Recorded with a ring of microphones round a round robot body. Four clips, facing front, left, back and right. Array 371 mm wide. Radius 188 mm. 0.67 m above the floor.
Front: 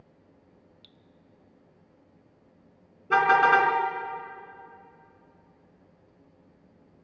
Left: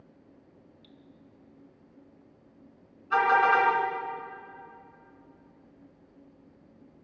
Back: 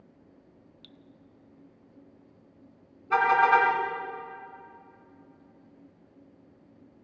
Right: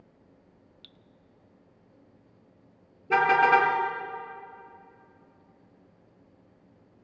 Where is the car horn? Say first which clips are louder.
Right 1 dB, front 1 dB; 55° right, 3.5 m.